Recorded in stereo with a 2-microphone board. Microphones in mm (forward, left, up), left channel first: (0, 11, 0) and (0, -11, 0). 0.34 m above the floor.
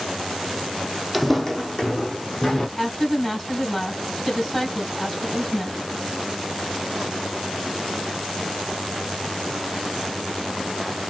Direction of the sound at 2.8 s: 20° left (ahead or behind).